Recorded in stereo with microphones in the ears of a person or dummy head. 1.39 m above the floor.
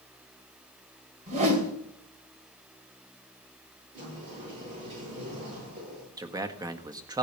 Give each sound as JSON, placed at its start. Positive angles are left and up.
{"t": 1.3, "sound": "a whoosh", "side_deg": -40, "distance_m": 2.5}
{"t": 3.9, "sound": "a sliding door", "side_deg": -35, "distance_m": 8.5}
{"t": 6.2, "sound": "a man speaking", "side_deg": -20, "distance_m": 0.9}